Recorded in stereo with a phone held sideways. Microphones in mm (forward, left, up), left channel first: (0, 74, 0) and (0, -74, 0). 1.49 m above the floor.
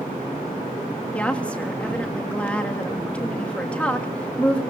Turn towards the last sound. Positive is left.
turn(degrees=10)  # may be behind; listen again after turning